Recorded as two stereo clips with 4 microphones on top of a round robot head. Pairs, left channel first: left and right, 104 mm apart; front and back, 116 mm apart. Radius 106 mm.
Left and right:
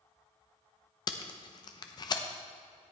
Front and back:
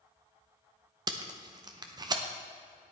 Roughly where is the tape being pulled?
Behind left.